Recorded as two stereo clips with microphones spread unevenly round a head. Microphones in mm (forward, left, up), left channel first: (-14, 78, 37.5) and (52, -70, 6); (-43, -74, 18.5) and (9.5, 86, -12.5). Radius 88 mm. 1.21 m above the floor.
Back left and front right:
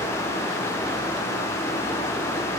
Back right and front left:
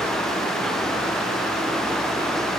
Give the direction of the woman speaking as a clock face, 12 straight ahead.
I don't hear a woman speaking.